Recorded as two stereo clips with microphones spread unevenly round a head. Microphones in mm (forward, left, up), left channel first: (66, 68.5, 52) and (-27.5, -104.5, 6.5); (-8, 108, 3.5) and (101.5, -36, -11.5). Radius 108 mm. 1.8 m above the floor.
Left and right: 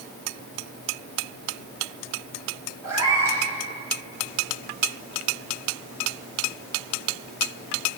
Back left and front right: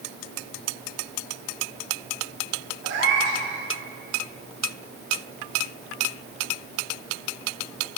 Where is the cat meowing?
40° right, 4.5 m.